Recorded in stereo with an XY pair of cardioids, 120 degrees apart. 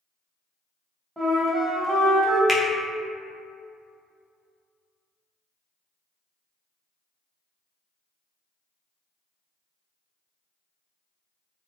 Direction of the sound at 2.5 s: 10° left.